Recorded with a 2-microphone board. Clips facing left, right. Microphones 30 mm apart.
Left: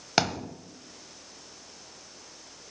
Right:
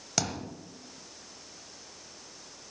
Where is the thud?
40° left (ahead or behind), 1.1 m.